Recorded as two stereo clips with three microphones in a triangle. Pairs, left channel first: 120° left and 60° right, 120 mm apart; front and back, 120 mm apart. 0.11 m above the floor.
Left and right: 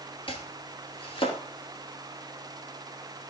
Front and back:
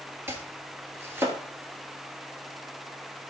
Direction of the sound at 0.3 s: 115° left.